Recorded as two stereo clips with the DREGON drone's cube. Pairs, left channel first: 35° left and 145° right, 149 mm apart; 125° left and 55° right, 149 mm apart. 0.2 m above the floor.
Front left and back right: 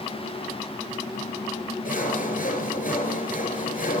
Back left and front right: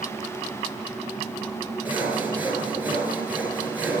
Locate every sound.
1.9 s sawing: 25° left, 3 m